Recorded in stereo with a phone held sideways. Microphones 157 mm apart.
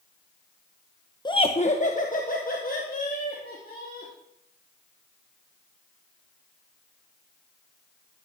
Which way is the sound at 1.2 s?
25° left (ahead or behind).